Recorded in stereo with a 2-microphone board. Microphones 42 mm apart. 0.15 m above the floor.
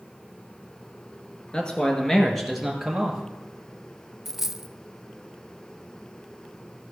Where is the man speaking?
25° left (ahead or behind), 2 m; by 3.2 s 10° right (ahead or behind), 3 m.